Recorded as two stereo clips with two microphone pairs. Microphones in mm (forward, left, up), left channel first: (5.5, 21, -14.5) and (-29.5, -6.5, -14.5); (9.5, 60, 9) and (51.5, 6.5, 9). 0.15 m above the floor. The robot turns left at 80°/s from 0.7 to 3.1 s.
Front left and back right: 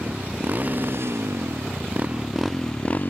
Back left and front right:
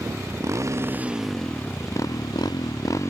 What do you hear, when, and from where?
0.0 s a motorcycle: 95° right; by 3.1 s 80° left